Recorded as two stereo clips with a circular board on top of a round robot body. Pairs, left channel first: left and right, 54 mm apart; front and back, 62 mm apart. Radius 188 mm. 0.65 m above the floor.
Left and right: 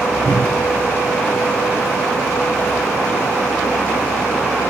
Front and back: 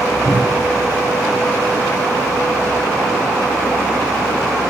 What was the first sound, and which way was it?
A cupboard door, 40° right.